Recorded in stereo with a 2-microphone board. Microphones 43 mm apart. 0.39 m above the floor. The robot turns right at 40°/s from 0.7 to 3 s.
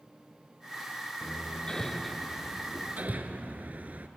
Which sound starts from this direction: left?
Hammering, at 1.2 s.